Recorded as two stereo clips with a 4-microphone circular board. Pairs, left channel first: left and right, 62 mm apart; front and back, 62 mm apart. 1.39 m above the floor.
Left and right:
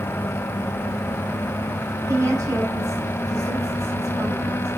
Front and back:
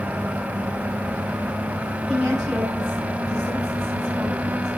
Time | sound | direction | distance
2.1 | a woman speaking | 85° right | 8 m